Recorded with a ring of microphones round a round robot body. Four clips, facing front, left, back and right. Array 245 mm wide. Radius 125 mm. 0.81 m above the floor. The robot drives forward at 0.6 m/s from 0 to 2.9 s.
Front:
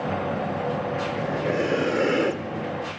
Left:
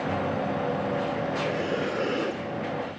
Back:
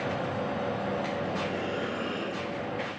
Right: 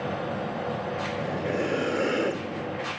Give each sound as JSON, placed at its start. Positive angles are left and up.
{"t": 1.1, "sound": "breathing", "azimuth_deg": -5, "distance_m": 1.3}